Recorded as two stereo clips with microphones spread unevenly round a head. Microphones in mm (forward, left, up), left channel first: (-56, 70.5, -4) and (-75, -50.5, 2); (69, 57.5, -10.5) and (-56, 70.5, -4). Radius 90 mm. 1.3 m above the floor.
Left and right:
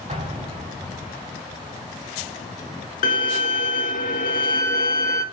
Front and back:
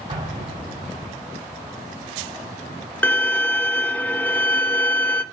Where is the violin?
70° left, 0.9 m.